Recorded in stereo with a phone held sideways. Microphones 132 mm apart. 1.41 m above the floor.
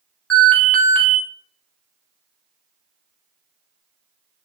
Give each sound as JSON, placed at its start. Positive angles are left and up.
{"t": 0.3, "sound": "an alarm", "side_deg": 10, "distance_m": 1.9}